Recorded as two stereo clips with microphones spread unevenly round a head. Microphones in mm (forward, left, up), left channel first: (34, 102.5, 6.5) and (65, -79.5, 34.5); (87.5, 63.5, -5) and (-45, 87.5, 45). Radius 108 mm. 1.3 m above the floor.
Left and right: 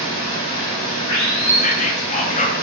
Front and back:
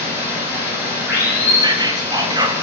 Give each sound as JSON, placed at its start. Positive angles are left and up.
{"t": 0.0, "sound": "running water", "azimuth_deg": 110, "distance_m": 2.5}
{"t": 1.6, "sound": "whispering", "azimuth_deg": 95, "distance_m": 0.6}